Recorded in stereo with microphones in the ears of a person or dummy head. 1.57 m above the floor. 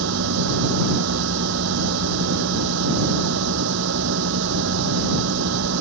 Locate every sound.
0.0 s a machine running: 75° right (ahead or behind)